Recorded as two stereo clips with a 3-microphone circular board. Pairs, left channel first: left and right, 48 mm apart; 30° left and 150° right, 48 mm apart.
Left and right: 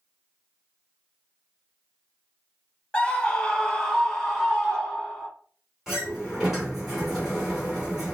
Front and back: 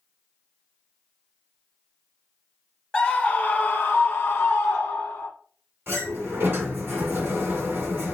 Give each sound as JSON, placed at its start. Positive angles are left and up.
{"t": 2.9, "sound": "a scream", "azimuth_deg": 70, "distance_m": 1.0}
{"t": 5.9, "sound": "a sliding door", "azimuth_deg": -170, "distance_m": 2.5}